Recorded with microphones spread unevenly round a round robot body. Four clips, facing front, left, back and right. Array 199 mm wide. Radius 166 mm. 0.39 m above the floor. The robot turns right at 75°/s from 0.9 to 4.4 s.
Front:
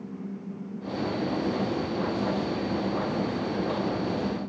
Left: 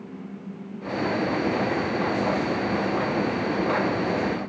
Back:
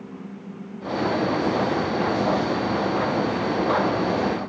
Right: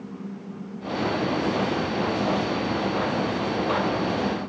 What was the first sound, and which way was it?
Only background noise.